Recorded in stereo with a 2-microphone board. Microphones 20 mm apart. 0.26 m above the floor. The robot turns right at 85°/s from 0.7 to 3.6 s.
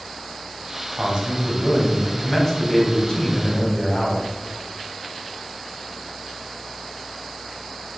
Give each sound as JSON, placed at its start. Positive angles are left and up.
{"t": 0.9, "sound": "a man speaking", "azimuth_deg": -80, "distance_m": 1.3}